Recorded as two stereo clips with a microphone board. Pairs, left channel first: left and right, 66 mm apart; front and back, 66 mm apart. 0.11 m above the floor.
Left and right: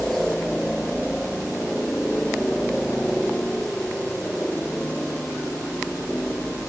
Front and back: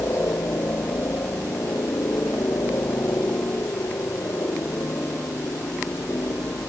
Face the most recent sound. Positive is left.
turn(degrees=5)